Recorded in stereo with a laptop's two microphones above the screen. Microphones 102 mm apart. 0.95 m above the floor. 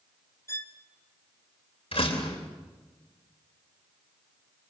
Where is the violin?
25° left (ahead or behind), 0.8 m.